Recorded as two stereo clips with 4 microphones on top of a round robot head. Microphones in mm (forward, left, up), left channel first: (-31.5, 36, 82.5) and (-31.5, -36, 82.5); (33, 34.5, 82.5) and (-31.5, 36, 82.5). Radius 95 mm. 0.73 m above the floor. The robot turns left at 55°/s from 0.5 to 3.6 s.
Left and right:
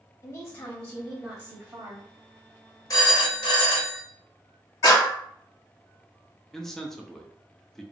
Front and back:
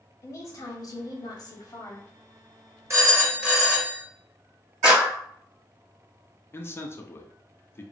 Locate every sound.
0.2 s a woman speaking: 30° left, 1.3 m; by 2.1 s 55° right, 1.3 m
2.9 s a phone ringing: 130° left, 1.5 m; by 4.0 s 90° left, 1.5 m
4.8 s a clap: 105° left, 1.7 m
6.5 s a man speaking: 10° left, 0.7 m